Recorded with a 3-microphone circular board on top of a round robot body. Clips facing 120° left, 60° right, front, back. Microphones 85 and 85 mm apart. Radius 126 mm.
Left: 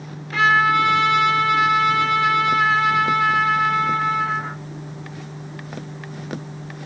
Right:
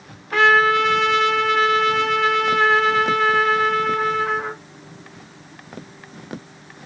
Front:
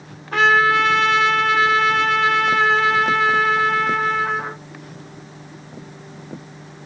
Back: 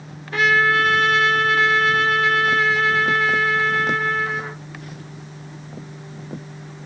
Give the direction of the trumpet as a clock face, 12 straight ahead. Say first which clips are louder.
Right 2 dB, front 2 dB; 1 o'clock.